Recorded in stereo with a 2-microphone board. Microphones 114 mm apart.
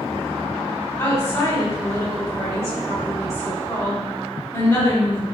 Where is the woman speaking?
25° left (ahead or behind), 1.2 m.